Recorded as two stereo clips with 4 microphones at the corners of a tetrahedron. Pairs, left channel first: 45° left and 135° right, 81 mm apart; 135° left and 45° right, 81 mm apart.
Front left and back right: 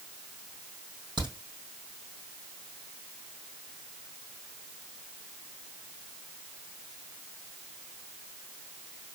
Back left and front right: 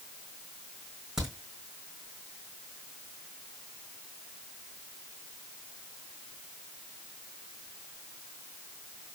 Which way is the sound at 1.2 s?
125° right.